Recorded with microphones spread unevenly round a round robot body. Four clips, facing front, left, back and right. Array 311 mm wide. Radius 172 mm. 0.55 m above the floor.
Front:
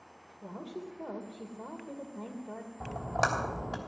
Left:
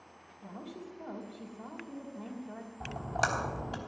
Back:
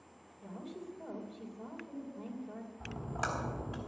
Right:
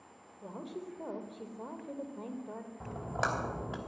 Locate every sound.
0.4 s a woman speaking: 40° right, 2.5 m
2.8 s a splash: 10° right, 3 m